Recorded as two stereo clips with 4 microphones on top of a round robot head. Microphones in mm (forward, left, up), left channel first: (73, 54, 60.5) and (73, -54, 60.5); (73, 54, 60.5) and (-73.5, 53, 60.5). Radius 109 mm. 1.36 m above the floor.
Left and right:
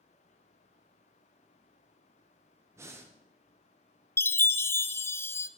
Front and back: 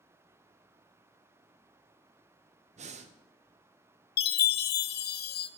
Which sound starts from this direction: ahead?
A chime, at 4.2 s.